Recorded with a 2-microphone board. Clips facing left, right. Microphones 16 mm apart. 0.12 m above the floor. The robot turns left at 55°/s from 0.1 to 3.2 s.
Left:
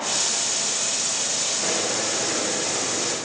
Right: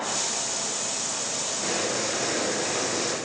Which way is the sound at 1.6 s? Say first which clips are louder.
Left 2 dB; 20° left.